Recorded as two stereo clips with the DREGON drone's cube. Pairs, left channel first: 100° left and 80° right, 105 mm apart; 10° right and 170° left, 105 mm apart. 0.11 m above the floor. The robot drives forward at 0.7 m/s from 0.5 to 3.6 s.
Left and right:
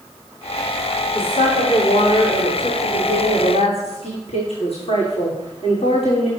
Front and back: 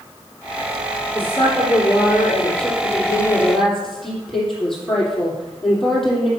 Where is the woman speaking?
60° left, 6.5 m; by 6.3 s 75° left, 5.5 m.